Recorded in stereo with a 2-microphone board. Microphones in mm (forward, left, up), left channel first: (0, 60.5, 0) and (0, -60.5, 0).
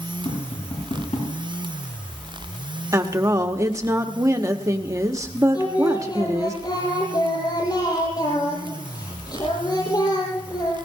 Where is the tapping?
65° left (ahead or behind), 8 m.